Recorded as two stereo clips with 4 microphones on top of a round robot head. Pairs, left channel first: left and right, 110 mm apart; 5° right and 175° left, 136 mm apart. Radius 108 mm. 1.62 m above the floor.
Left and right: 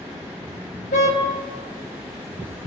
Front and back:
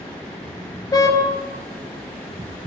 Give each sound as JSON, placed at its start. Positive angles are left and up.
{"t": 0.9, "sound": "a car horn", "azimuth_deg": 60, "distance_m": 10.0}